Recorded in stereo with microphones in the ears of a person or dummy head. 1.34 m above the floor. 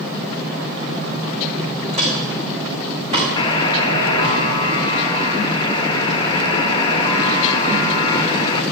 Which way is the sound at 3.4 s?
30° left (ahead or behind).